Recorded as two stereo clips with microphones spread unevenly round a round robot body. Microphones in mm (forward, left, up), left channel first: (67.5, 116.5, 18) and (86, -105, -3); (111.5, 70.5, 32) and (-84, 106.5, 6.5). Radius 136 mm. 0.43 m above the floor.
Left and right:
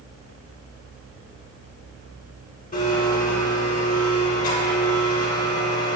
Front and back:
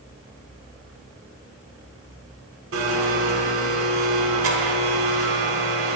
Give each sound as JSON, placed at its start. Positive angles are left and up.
{"t": 2.7, "sound": "a blender", "azimuth_deg": 160, "distance_m": 1.0}